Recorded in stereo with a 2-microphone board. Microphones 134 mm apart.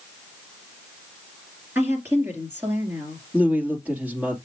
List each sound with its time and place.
1.8 s a woman speaking: 15° right (ahead or behind), 3 m
3.3 s a woman speaking: 10° right (ahead or behind), 3 m